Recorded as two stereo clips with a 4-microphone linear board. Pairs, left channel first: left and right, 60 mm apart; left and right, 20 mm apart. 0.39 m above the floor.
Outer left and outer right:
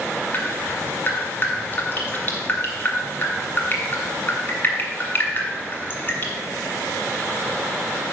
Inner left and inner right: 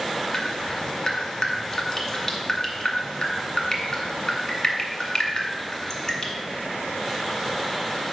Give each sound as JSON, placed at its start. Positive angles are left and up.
{"t": 0.3, "sound": "dripping", "side_deg": 35, "distance_m": 1.5}